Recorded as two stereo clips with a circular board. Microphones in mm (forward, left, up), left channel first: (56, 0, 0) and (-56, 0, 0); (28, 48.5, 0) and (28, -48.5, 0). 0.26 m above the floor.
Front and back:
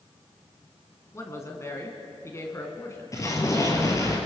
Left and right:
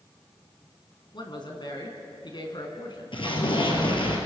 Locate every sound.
1.1 s a woman speaking: 60° left, 3 m
3.1 s an explosion: 60° left, 3 m